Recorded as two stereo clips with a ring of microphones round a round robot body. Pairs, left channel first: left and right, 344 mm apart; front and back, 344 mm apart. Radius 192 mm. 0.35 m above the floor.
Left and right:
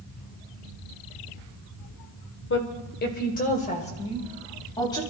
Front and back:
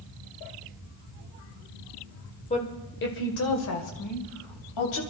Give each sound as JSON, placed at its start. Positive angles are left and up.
{"t": 2.5, "sound": "a woman speaking", "azimuth_deg": 60, "distance_m": 1.6}